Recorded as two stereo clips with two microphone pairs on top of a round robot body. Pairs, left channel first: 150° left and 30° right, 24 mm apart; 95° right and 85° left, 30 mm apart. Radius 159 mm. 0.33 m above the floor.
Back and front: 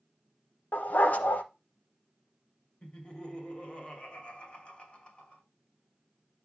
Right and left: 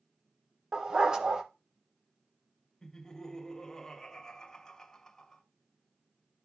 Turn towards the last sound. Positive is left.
turn(degrees=-170)